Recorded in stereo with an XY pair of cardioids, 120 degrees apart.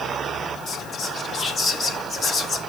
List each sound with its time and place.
0.7 s whispering: 35° left, 2 m